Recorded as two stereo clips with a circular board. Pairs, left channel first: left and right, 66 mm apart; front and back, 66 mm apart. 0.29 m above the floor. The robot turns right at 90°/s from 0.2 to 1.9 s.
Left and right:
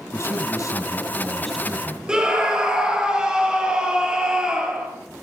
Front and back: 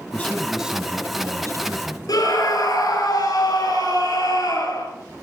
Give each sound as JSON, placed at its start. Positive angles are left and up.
{"t": 0.1, "sound": "a man speaking", "azimuth_deg": 65, "distance_m": 1.9}
{"t": 2.1, "sound": "a scream", "azimuth_deg": -10, "distance_m": 4.5}